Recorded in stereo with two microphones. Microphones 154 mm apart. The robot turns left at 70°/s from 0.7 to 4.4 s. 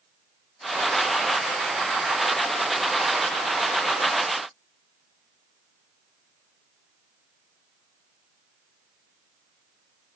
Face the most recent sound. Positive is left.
No sound to turn to.